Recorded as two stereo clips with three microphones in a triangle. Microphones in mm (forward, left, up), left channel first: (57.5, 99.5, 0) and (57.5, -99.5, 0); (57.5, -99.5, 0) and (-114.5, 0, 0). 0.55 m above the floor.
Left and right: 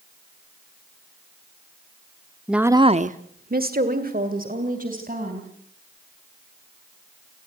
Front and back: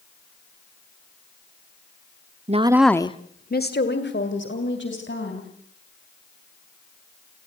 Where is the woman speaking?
Straight behind, 0.9 m; by 5.5 s 45° right, 4 m.